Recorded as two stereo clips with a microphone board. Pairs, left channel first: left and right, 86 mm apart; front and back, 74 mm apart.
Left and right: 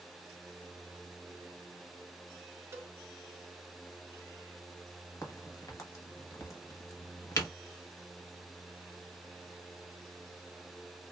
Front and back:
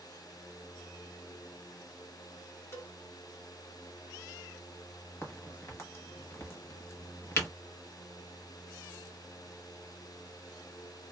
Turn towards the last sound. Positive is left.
turn(degrees=50)